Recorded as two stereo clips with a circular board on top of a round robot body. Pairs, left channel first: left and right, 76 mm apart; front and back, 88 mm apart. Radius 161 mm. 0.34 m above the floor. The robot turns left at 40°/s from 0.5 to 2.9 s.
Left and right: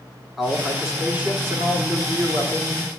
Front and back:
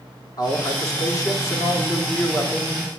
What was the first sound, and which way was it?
A man speaking, straight ahead.